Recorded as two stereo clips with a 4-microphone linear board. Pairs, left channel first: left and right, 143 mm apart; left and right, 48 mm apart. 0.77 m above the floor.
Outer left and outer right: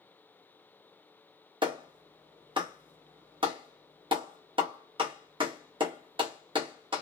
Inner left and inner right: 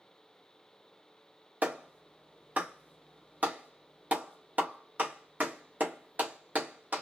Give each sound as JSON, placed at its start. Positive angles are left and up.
{"t": 1.6, "sound": "a clap", "side_deg": -35, "distance_m": 0.9}